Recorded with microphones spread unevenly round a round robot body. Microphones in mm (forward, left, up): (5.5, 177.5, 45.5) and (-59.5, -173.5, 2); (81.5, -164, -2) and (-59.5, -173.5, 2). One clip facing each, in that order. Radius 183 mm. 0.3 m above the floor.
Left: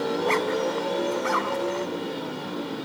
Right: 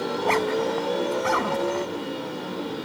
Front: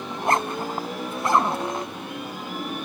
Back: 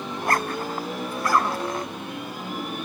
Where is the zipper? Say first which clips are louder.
Right 3 dB, front 2 dB; 60° right.